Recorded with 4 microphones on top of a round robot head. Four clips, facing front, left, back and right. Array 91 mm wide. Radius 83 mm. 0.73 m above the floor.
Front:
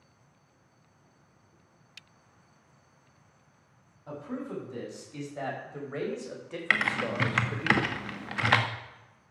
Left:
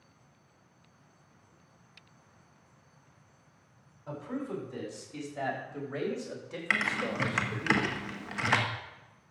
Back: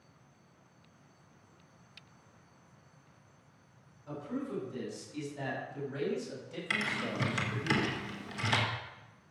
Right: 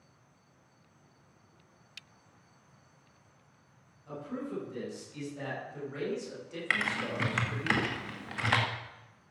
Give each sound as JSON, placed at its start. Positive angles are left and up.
{"t": 4.1, "sound": "a man speaking", "azimuth_deg": 50, "distance_m": 6.5}
{"t": 6.7, "sound": "typing on a keyboard", "azimuth_deg": 10, "distance_m": 1.6}